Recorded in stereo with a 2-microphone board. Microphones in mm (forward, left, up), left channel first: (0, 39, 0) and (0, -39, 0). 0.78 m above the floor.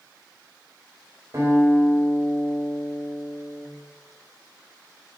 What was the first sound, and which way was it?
A guitar, 40° right (ahead or behind).